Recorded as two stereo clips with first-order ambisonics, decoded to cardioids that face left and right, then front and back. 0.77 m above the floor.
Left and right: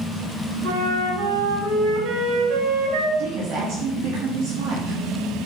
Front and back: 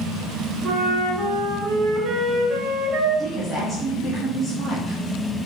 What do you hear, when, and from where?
0.6 s a flute: 110° right, 1.6 m
3.2 s a woman speaking: 100° right, 1.3 m